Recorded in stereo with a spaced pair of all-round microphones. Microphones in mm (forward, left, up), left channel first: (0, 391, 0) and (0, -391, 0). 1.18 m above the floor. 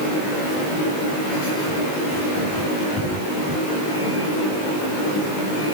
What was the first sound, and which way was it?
Only background noise.